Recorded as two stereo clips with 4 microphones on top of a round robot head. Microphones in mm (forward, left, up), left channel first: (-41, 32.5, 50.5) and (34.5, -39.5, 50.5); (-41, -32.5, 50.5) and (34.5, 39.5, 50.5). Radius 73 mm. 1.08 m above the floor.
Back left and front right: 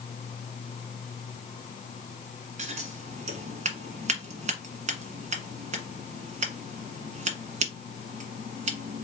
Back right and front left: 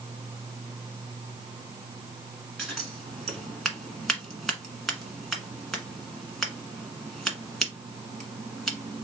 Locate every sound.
2.6 s scissors: 50° right, 1.5 m